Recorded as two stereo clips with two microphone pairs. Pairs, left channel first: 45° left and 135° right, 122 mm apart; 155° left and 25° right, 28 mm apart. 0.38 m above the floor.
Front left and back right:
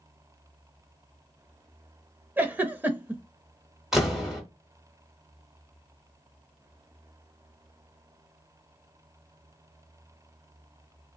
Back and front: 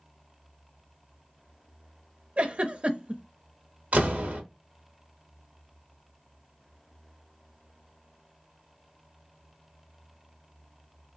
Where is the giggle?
60° right, 0.5 m.